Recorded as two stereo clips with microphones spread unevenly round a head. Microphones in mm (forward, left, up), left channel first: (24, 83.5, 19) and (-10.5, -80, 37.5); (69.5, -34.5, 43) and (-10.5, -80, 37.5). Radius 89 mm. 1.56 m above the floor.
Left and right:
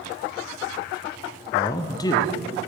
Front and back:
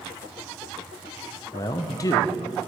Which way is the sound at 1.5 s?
10° left.